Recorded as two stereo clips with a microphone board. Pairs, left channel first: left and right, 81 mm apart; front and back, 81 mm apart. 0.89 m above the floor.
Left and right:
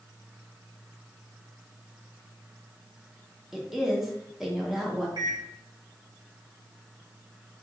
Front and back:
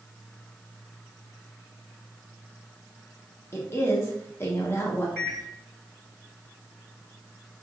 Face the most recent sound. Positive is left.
turn(degrees=-70)